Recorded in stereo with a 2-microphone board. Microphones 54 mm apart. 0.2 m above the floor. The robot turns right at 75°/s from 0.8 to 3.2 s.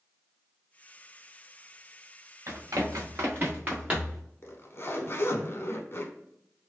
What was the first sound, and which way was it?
Running footsteps, 70° right (ahead or behind).